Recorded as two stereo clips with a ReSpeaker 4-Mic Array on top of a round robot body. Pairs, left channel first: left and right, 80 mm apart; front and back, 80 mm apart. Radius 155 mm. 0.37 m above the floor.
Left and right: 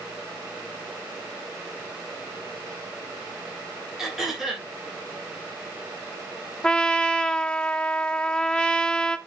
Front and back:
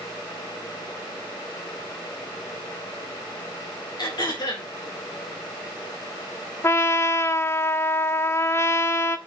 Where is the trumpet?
20° left, 0.9 m.